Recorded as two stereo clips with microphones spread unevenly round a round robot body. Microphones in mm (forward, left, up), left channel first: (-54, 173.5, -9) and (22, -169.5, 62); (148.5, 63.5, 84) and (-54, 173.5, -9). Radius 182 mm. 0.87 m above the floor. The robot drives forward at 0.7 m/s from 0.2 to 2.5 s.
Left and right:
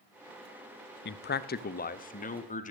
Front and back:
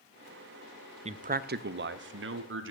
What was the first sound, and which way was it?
A man speaking, 135° left.